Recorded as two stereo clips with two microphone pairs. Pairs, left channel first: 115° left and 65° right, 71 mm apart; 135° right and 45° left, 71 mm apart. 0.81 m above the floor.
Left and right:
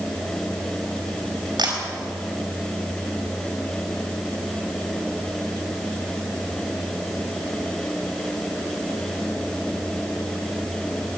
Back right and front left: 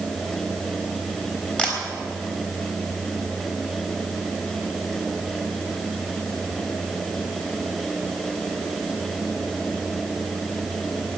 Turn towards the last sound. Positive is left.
turn(degrees=-60)